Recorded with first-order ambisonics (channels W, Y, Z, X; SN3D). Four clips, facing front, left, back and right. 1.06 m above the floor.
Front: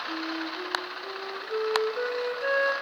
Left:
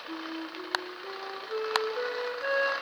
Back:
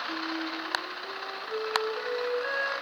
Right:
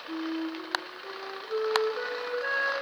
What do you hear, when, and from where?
0.1 s a flute: straight ahead, 0.7 m